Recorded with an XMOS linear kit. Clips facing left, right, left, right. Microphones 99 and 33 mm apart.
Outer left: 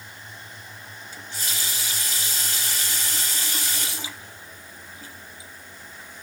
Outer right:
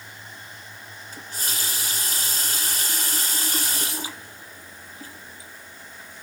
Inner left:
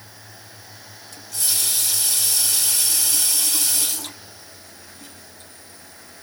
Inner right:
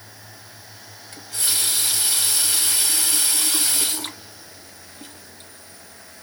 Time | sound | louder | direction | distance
1.1 | a running tap | outer right 1 dB, inner right 1 dB | 45° right (ahead or behind) | 1.1 m